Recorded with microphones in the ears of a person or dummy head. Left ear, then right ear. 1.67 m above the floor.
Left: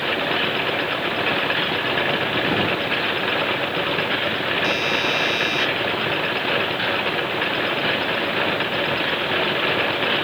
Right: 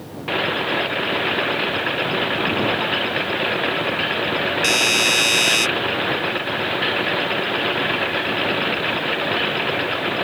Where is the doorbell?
40° right (ahead or behind).